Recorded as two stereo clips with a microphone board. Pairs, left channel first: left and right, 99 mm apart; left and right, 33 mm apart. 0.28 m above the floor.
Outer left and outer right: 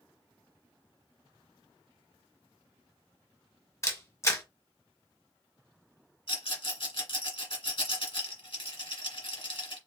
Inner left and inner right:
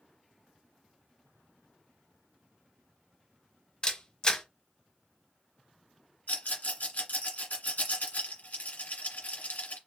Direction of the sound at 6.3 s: 65° left (ahead or behind).